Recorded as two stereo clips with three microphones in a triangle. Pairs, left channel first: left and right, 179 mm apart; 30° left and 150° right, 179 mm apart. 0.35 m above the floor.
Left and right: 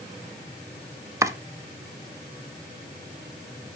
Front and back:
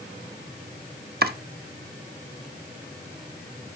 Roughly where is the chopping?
Behind.